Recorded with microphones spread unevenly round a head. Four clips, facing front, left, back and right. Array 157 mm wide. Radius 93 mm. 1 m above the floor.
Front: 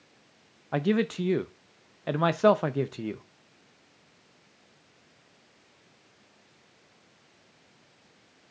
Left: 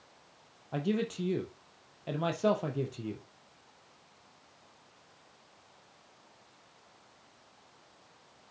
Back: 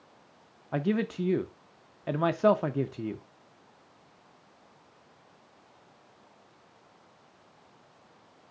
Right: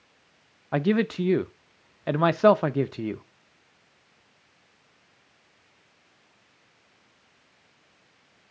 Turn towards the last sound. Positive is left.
turn(degrees=-55)